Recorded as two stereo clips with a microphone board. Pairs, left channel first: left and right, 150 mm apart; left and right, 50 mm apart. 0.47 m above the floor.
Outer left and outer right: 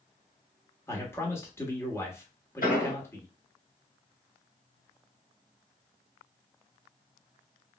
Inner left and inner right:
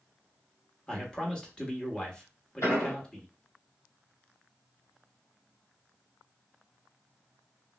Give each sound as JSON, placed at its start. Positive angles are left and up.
{"t": 0.9, "sound": "a man speaking", "side_deg": 15, "distance_m": 1.0}
{"t": 2.6, "sound": "an explosion", "side_deg": 75, "distance_m": 2.0}